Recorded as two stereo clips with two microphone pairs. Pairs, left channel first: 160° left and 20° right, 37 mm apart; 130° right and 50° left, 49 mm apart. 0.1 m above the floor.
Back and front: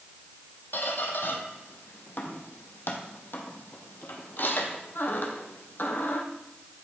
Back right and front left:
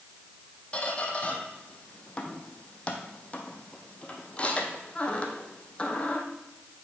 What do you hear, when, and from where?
0.7 s a squeak: 165° left, 1.3 m